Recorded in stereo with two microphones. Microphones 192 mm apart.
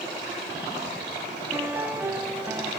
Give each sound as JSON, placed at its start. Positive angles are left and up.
{"t": 1.5, "sound": "a piano", "side_deg": -10, "distance_m": 2.5}